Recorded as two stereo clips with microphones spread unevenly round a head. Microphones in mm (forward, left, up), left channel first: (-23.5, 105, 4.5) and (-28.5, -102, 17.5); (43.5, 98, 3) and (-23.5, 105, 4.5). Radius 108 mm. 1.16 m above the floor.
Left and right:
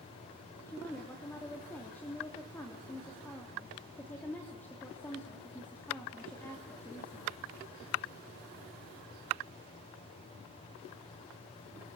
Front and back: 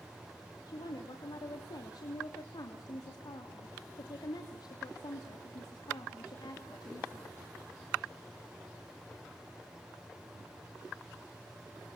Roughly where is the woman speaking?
Ahead.